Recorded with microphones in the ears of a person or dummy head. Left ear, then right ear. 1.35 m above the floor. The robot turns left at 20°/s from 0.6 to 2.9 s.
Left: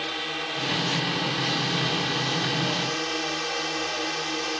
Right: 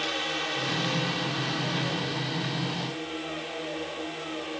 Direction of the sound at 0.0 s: 175° left.